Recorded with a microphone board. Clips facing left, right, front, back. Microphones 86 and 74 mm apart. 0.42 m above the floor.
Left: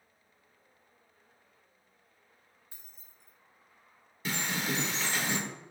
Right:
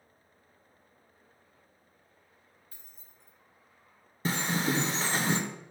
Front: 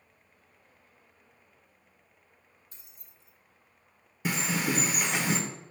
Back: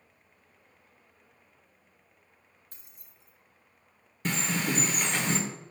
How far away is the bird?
About 0.8 m.